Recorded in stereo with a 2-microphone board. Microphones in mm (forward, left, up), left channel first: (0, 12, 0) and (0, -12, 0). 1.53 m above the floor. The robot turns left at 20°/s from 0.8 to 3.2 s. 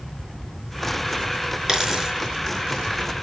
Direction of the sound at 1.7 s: 20° right (ahead or behind).